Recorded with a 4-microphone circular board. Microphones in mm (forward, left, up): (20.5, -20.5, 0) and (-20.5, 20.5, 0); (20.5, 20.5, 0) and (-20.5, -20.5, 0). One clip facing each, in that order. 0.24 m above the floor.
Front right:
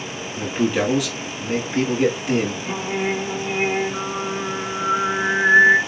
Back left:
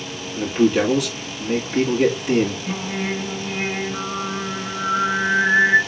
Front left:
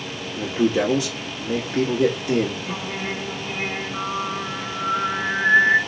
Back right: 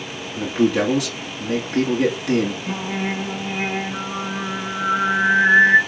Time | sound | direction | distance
0.3 | a man speaking | 135° right | 1.9 m
2.7 | singing | 100° right | 1.3 m